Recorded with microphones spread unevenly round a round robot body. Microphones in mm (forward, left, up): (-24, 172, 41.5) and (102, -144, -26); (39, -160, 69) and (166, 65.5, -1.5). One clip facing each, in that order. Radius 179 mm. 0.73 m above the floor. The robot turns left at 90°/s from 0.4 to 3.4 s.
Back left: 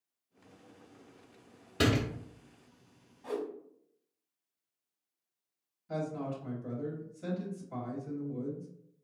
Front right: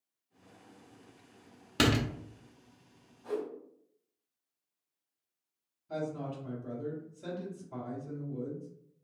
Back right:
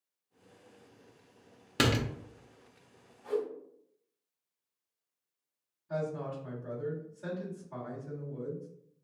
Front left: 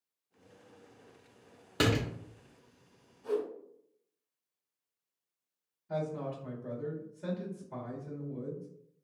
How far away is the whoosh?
About 1.5 m.